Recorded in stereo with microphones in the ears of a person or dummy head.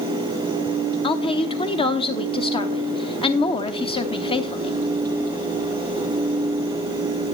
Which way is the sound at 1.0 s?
30° left (ahead or behind).